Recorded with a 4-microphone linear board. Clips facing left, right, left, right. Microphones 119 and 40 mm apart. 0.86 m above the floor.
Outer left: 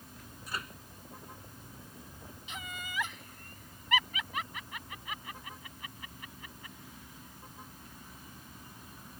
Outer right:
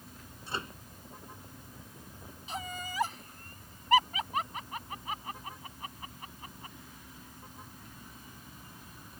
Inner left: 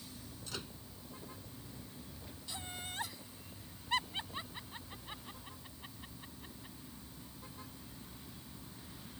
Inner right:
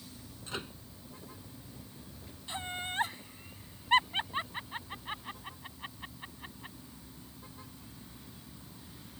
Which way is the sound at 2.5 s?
40° right (ahead or behind).